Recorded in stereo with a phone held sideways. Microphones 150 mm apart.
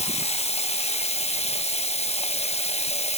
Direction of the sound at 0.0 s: 45° left (ahead or behind).